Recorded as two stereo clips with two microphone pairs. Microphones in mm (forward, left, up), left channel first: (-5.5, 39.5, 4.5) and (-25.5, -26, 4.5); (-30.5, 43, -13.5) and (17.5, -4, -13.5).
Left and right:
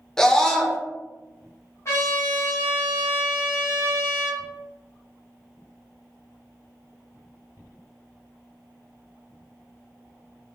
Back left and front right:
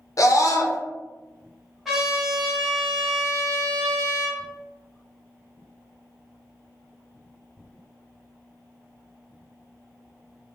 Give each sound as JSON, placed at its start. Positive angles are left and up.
{"t": 0.2, "sound": "a scream", "azimuth_deg": 155, "distance_m": 0.6}
{"t": 1.9, "sound": "a trumpet", "azimuth_deg": 45, "distance_m": 1.2}